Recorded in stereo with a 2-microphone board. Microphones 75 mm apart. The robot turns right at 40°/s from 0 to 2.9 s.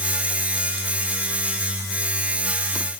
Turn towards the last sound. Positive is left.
No sound to turn to.